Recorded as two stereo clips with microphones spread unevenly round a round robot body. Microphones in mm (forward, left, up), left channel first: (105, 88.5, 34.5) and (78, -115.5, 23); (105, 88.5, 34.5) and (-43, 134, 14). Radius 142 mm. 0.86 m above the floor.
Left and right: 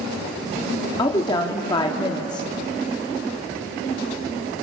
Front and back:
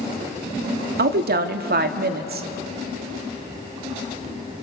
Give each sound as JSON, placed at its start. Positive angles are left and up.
{"t": 1.0, "sound": "a woman speaking", "azimuth_deg": 160, "distance_m": 1.3}